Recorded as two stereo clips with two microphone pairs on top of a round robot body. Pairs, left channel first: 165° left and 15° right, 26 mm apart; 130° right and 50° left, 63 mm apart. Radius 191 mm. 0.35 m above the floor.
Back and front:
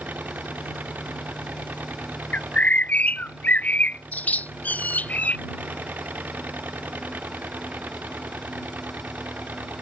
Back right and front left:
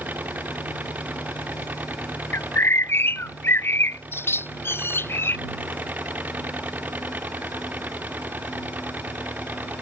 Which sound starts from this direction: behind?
A bird, at 2.3 s.